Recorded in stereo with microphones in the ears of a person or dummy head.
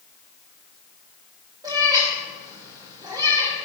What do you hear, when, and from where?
1.6 s a cat meowing: 25° right (ahead or behind), 3 m